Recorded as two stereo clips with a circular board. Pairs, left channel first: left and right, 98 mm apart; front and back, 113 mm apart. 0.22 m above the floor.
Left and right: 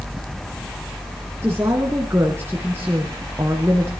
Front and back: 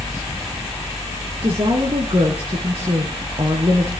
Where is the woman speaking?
150° right, 2.5 m.